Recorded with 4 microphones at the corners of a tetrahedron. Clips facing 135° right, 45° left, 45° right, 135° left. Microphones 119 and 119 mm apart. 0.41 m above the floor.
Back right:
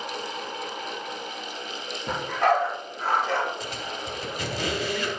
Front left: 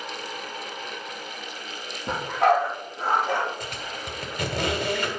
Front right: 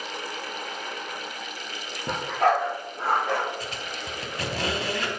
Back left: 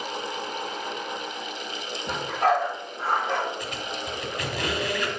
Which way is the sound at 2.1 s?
40° right.